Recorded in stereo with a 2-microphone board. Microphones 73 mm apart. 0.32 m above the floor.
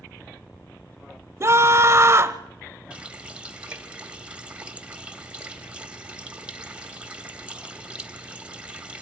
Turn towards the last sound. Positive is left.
turn(degrees=-15)  # may be behind; listen again after turning